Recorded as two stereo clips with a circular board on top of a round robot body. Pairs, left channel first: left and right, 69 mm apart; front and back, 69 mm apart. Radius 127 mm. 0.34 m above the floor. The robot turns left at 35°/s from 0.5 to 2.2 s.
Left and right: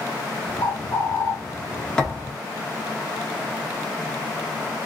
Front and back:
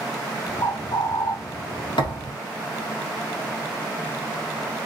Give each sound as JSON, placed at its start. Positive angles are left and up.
{"t": 0.6, "sound": "a bird", "azimuth_deg": 60, "distance_m": 1.0}
{"t": 2.0, "sound": "a thud", "azimuth_deg": 10, "distance_m": 1.7}